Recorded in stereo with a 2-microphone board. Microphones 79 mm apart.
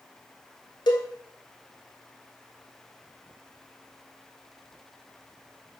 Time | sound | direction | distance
0.9 | a cowbell | 65° left (ahead or behind) | 0.9 m